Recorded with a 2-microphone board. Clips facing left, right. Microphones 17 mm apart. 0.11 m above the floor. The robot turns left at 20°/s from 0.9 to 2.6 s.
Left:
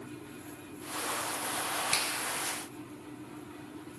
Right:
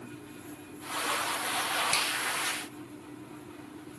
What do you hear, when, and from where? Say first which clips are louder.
1.9 s a finger snap: even; 5° right (ahead or behind), 1.3 m; by 2.1 s 10° right (ahead or behind), 1.3 m